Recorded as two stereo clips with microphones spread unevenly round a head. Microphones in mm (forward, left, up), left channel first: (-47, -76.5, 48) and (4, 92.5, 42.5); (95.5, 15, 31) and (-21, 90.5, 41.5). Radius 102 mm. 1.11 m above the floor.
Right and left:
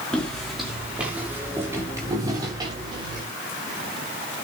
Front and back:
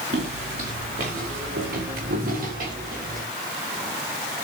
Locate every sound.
0.1 s footsteps: 170° left, 5 m; by 3.2 s 135° left, 8 m